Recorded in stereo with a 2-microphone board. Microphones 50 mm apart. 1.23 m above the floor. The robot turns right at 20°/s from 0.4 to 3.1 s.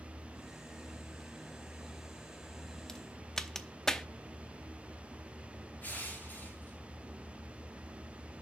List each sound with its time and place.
2.9 s a crack: 15° left (ahead or behind), 0.7 m
5.8 s crushing: 35° left (ahead or behind), 5 m